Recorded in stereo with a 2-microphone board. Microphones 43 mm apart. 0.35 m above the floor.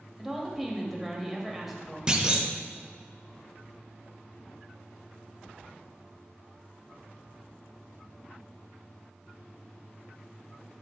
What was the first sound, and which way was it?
A woman speaking, 5° right (ahead or behind).